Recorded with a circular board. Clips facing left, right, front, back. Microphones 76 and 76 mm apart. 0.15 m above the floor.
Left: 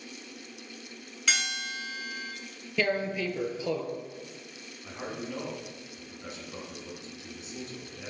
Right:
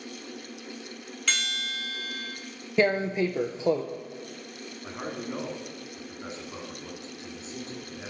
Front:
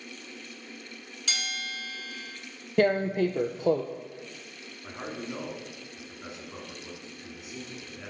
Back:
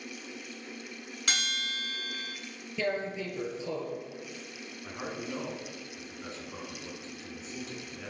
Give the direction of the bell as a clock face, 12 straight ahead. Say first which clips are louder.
Left 1 dB, back 1 dB; 6 o'clock.